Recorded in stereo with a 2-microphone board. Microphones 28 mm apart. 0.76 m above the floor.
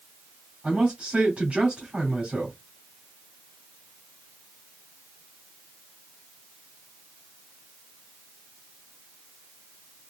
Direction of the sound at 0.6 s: 40° right (ahead or behind).